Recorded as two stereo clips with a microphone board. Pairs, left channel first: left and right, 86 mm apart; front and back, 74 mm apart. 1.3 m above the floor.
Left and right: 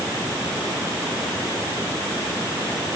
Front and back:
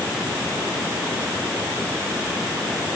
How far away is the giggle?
I don't hear a giggle.